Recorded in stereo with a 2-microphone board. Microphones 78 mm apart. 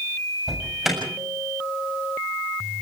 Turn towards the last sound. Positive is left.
turn(degrees=0)  # may be behind; listen again after turning